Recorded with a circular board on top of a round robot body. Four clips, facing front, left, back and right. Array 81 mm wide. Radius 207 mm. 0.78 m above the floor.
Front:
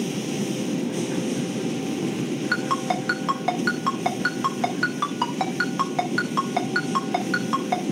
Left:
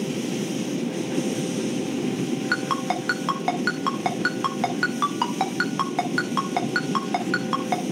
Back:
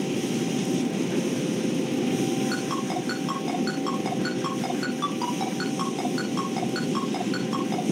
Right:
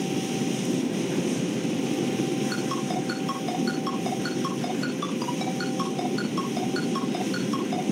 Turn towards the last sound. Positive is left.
turn(degrees=65)